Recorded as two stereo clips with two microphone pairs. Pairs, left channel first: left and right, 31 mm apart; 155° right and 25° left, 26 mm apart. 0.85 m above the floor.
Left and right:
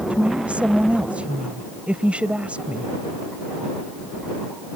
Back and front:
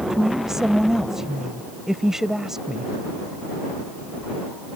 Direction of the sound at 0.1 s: 45° right.